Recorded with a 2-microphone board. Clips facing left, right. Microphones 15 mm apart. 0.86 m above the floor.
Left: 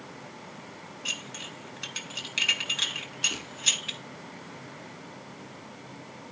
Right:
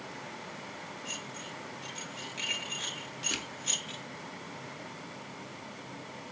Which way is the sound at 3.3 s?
40° right (ahead or behind).